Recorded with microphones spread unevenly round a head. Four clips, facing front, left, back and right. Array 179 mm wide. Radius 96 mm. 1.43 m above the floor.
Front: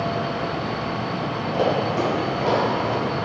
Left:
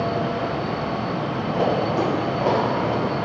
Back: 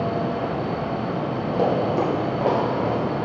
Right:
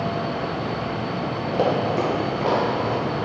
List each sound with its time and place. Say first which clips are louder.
1.5 s running footsteps: even, back 1 dB; 125° right, 1.6 m; by 2.9 s 165° left, 2.5 m